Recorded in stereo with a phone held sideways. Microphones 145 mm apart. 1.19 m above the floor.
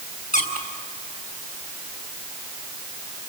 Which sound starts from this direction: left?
A squeak, at 0.3 s.